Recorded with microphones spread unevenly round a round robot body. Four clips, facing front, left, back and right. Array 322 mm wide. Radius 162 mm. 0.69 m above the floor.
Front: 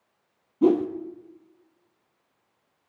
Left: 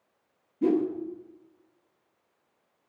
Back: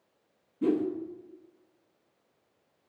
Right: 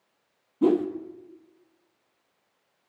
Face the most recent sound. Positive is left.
turn(degrees=-40)